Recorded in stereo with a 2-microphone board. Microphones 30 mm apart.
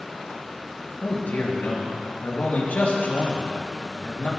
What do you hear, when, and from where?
1.0 s a man speaking: 70° left (ahead or behind), 3.5 m